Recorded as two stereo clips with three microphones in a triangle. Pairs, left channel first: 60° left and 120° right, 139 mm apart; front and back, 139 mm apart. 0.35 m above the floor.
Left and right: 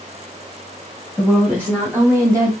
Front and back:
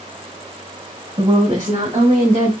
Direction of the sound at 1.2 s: 135° left.